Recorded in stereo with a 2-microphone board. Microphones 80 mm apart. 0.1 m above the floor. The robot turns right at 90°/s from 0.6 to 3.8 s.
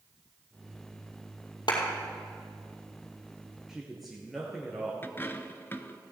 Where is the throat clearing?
I don't hear throat clearing.